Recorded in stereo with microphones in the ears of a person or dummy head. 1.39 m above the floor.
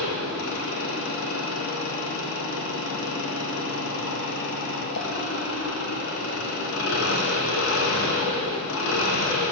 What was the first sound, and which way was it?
An engine running, 75° left (ahead or behind).